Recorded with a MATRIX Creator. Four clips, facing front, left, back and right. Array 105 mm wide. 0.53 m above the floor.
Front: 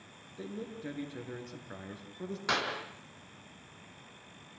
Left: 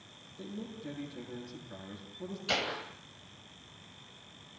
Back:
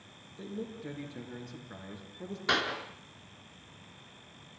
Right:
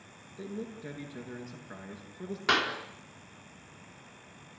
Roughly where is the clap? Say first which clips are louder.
Right 6 dB, back 2 dB; right.